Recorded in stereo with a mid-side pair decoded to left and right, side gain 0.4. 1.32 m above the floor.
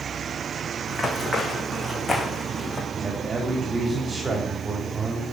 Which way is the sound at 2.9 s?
35° right.